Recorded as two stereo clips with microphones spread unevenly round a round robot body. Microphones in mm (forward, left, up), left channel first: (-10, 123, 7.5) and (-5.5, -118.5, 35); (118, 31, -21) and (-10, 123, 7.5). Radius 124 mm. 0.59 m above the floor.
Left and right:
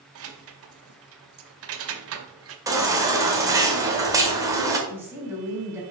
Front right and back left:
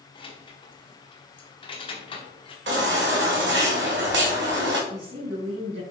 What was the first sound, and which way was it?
Keys jangling, 80° right.